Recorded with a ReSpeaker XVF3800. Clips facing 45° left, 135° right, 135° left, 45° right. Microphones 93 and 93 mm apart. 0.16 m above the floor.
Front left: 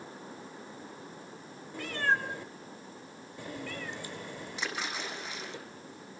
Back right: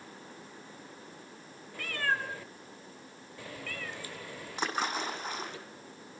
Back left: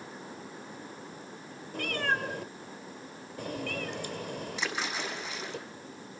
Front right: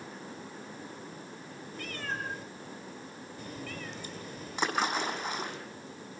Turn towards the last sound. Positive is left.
turn(degrees=-85)